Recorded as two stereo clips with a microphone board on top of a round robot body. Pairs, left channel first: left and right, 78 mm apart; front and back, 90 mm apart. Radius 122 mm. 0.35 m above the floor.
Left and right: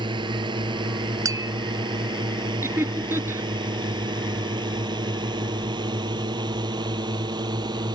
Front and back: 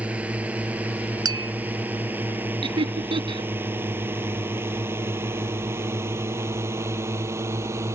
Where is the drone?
105° right; by 8.0 s 120° right.